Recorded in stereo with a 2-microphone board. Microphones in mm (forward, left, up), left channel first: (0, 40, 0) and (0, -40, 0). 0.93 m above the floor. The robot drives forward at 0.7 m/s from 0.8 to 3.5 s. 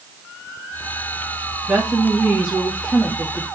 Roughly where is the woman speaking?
Centre.